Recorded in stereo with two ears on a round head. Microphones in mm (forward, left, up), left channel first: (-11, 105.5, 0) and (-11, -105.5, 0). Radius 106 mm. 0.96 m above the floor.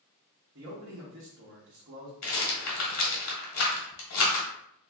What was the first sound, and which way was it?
A man speaking, 55° right (ahead or behind).